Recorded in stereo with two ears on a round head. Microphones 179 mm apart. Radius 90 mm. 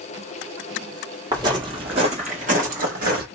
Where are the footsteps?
20° right (ahead or behind), 1.6 m; by 3.2 s 50° right (ahead or behind), 1.7 m.